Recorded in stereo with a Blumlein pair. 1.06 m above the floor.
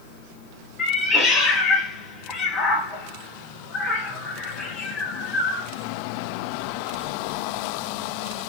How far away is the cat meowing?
About 0.8 m.